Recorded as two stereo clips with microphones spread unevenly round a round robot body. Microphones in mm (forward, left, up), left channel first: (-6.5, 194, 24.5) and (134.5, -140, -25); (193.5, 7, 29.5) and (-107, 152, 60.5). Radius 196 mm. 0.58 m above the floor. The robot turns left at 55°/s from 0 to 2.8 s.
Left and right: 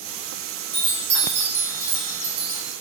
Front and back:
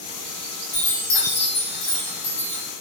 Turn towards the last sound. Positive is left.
turn(degrees=-100)